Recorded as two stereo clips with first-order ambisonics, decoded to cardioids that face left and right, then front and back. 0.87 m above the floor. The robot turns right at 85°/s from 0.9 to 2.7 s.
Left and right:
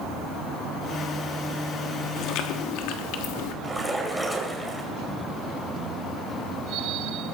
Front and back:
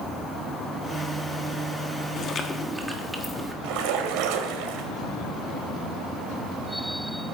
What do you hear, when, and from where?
2.2 s chewing: 45° left, 1.2 m; by 3.5 s 90° left, 1.2 m
3.6 s a splash: straight behind, 2 m